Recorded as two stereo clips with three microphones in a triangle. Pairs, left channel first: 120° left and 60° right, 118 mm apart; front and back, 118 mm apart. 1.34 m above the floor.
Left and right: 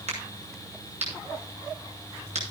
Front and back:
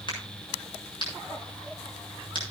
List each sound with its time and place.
0.1 s a crack: 45° right, 7.5 m